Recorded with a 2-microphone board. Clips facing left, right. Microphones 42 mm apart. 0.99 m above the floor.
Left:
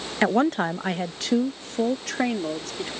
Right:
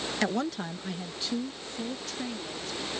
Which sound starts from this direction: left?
A woman speaking, at 0.2 s.